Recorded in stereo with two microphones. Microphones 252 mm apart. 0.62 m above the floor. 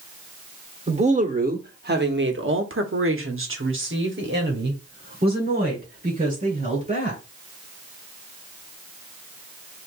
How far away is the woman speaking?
About 1.3 m.